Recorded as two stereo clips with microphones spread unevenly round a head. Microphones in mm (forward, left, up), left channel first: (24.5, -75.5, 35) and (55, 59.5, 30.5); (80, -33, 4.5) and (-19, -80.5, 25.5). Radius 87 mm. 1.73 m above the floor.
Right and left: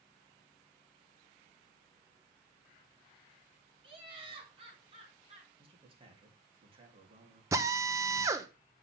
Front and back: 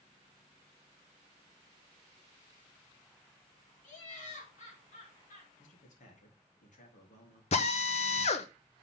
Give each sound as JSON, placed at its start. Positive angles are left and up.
{"t": 3.8, "sound": "laughter", "azimuth_deg": 25, "distance_m": 4.0}
{"t": 5.6, "sound": "a man speaking", "azimuth_deg": 25, "distance_m": 3.0}
{"t": 7.5, "sound": "a drill", "azimuth_deg": 10, "distance_m": 1.0}